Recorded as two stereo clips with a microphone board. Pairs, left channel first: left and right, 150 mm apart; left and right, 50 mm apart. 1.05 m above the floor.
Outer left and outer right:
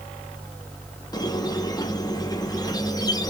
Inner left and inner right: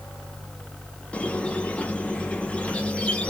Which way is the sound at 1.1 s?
25° left (ahead or behind).